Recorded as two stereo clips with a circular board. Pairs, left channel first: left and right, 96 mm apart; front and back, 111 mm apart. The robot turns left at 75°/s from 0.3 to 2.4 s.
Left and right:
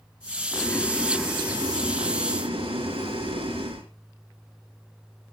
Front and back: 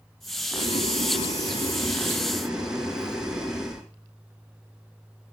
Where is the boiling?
45° left, 4.5 m; by 3.9 s 95° right, 4.5 m.